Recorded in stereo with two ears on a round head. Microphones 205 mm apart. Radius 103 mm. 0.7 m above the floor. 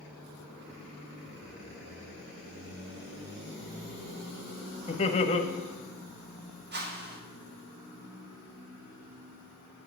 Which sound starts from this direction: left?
Laughter, at 4.9 s.